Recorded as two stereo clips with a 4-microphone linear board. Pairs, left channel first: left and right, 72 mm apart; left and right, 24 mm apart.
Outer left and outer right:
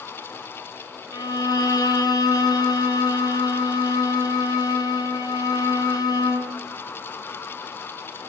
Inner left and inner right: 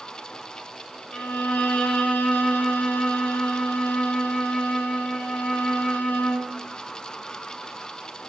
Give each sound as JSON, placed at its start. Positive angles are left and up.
{"t": 1.1, "sound": "a violin", "side_deg": 70, "distance_m": 5.5}